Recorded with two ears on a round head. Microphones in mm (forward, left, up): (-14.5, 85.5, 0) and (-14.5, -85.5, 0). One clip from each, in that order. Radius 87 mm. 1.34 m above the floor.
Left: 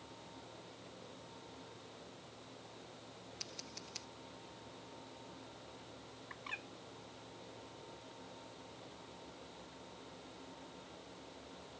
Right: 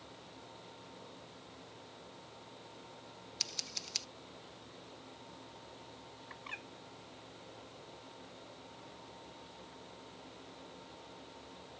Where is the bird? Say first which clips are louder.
Even; centre (ahead or behind).